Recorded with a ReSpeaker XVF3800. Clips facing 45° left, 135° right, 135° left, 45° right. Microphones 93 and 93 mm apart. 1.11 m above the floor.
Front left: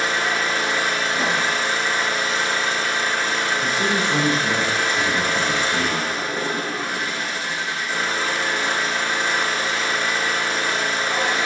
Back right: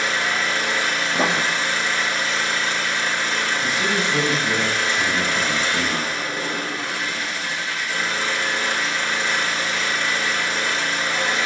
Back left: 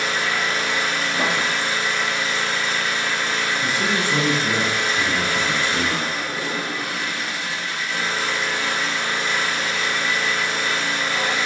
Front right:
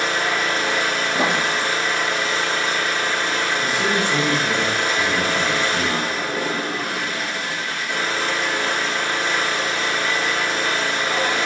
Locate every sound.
0.0 s an engine running: 10° right, 3.5 m
1.1 s writing: 105° right, 0.6 m
3.6 s a man speaking: 80° left, 5.5 m